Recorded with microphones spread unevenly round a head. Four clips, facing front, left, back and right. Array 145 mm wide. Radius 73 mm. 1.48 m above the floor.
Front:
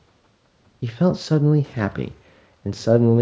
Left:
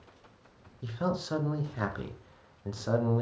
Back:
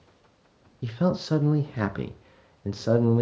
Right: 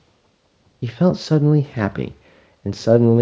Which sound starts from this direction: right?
A man speaking, at 0.8 s.